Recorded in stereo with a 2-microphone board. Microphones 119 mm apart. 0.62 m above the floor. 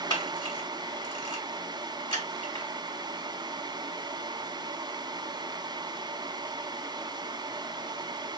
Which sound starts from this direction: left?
A camera shutter, at 0.1 s.